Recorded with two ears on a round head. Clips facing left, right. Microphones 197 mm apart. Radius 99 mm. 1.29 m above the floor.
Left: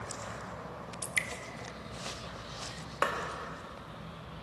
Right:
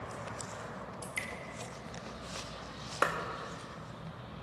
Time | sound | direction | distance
1.0 | dripping | 20° left (ahead or behind) | 0.7 m
3.0 | a clap | 20° right (ahead or behind) | 1.5 m